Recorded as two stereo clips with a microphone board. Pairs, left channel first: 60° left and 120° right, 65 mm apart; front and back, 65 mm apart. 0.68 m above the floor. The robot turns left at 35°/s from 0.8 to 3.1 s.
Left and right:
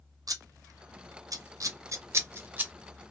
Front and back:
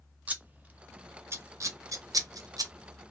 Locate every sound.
0.3 s scissors: 115° right, 0.5 m; by 2.7 s 175° left, 0.5 m